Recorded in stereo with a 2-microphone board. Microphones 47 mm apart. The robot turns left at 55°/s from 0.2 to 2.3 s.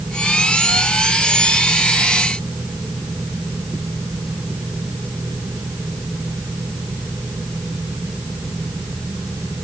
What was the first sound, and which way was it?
Only background noise.